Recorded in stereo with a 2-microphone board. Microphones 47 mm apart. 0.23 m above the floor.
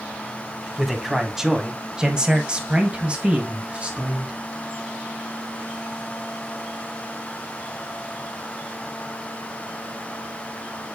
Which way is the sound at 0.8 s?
5° right (ahead or behind).